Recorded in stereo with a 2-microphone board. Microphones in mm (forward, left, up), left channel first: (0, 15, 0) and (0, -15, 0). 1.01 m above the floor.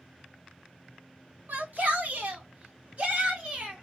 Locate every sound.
1.5 s a shout: 60° right (ahead or behind), 0.9 m; by 3.8 s 40° right (ahead or behind), 1.9 m